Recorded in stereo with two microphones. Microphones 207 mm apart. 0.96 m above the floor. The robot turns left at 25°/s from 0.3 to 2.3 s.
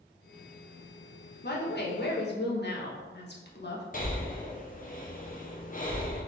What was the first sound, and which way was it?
A woman speaking, 50° left (ahead or behind).